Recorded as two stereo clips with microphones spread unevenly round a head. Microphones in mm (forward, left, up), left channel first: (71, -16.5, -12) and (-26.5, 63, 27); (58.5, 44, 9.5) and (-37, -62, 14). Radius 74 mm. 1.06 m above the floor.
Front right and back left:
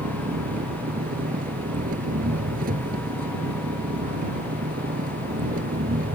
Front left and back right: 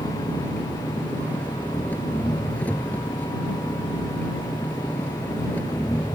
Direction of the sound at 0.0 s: 130° left.